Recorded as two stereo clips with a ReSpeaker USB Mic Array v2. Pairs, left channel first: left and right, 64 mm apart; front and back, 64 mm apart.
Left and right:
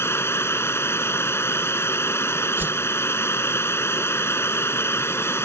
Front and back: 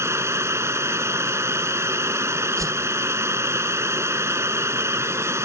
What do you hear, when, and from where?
0.0 s running water: 135° left
2.6 s a whoosh: 150° right